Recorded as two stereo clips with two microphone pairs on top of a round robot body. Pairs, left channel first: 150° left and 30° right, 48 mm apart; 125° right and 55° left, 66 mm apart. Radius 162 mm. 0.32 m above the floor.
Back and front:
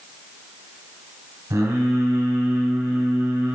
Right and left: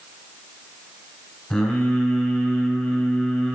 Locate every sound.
1.5 s singing: 40° right, 1.0 m